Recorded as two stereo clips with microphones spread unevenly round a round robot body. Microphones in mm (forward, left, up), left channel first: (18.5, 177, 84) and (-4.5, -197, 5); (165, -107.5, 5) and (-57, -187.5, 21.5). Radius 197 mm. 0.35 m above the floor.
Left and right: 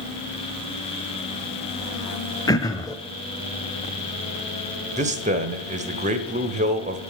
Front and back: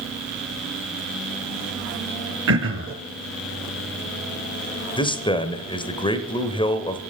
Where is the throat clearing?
175° left, 0.6 m.